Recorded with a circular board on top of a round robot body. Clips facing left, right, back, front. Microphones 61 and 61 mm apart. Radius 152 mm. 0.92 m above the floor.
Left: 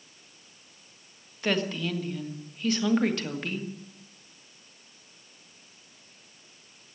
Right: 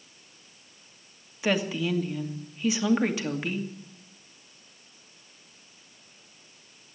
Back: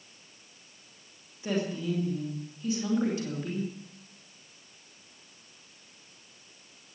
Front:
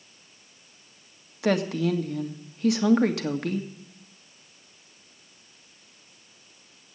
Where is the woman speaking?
10° right, 2.0 m.